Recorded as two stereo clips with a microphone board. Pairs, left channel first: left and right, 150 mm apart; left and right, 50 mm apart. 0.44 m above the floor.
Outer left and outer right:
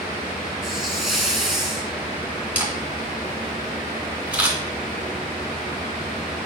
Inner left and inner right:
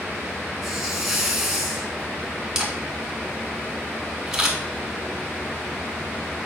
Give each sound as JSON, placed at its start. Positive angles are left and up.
{"t": 0.6, "sound": "a hiss", "side_deg": 0, "distance_m": 2.0}
{"t": 2.5, "sound": "a camera shutter", "side_deg": -10, "distance_m": 2.5}